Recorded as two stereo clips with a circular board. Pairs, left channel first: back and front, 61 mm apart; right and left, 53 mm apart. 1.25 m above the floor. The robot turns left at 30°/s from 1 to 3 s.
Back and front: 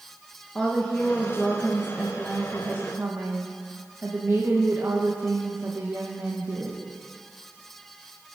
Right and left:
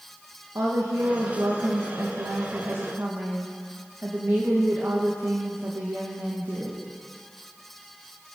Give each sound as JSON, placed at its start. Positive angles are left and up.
{"t": 0.6, "sound": "a woman speaking", "azimuth_deg": 105, "distance_m": 1.4}